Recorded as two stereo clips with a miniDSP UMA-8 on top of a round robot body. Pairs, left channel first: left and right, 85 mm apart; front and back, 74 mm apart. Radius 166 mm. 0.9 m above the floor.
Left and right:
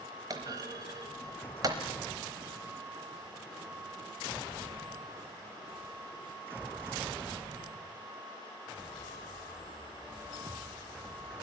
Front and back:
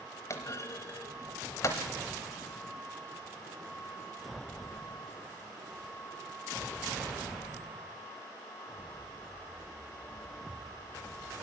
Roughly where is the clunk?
Ahead right.